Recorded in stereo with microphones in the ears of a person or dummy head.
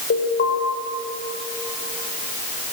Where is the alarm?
50° left (ahead or behind), 7 m.